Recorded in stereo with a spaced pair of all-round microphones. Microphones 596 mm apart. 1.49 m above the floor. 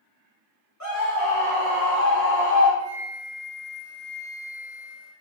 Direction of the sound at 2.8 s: 45° left (ahead or behind).